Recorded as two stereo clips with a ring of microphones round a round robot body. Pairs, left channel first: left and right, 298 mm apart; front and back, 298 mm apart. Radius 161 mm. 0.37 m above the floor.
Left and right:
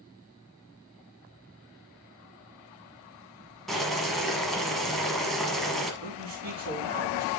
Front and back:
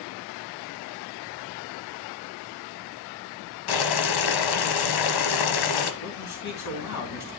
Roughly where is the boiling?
Ahead.